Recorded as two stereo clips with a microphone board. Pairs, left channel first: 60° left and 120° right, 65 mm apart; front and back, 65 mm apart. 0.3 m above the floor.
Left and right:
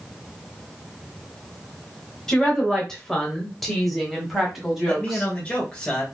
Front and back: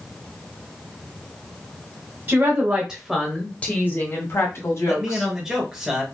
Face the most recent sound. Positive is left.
turn(degrees=115)